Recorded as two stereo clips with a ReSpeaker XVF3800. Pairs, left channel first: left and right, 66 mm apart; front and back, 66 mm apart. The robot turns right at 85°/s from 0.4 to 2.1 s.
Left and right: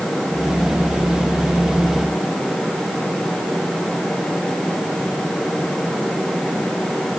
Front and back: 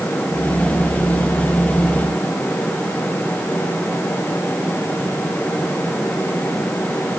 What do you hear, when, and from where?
Only background noise.